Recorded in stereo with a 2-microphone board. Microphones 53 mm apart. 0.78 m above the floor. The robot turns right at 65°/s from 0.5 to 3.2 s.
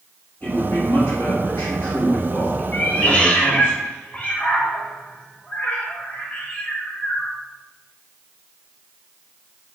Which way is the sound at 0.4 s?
35° left.